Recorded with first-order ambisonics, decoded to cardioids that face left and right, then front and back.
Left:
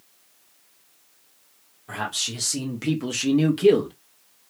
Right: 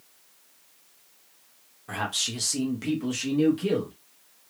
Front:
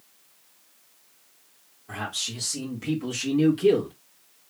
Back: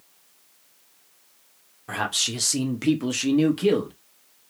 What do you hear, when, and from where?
1.9 s a man speaking: 170° right, 1.2 m; by 3.9 s 115° left, 1.1 m